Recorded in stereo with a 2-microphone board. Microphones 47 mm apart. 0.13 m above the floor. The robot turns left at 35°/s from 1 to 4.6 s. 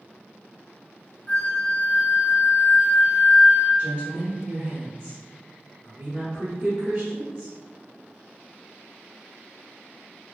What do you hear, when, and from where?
1.3 s a flute: 105° left, 0.9 m; by 3.7 s 20° left, 0.9 m
3.8 s a woman speaking: 25° right (ahead or behind), 1.1 m; by 7.5 s 15° right (ahead or behind), 1.1 m